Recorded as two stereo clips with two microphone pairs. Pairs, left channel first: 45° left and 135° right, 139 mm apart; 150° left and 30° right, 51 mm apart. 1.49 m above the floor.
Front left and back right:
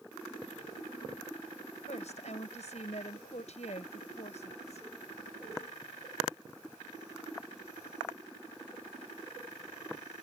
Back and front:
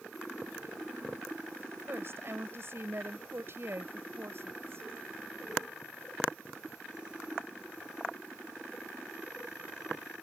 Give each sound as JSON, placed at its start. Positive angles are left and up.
{"t": 1.9, "sound": "a woman speaking", "azimuth_deg": 10}